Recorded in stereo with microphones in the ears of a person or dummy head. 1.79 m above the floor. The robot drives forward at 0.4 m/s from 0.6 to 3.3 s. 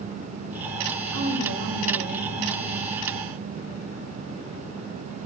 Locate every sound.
1.1 s a woman speaking: 85° right, 2 m; by 3.0 s 65° right (ahead or behind), 2.5 m